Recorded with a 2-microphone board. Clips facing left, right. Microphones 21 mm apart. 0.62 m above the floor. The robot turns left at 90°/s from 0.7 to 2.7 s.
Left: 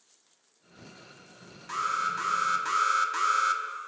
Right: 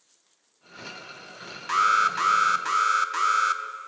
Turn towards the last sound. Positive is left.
turn(degrees=-160)